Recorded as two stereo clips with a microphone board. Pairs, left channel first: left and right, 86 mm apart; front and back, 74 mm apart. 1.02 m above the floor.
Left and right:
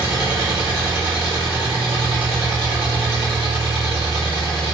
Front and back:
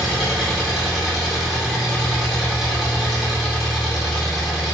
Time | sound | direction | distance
0.0 | an engine running | 95° right | 1.2 m